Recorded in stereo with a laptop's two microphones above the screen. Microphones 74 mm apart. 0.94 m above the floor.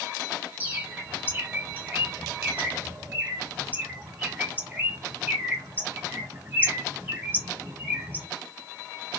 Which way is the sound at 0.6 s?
25° right (ahead or behind).